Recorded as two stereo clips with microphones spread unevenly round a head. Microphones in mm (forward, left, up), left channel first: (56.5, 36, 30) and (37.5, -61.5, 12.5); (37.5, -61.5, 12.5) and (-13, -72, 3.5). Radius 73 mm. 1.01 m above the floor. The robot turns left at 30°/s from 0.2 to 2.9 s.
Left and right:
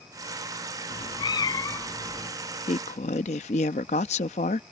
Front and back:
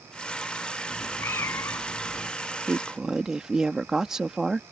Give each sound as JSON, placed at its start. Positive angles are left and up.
{"t": 0.9, "sound": "a cat meowing", "azimuth_deg": 60}
{"t": 2.7, "sound": "a woman speaking", "azimuth_deg": 115}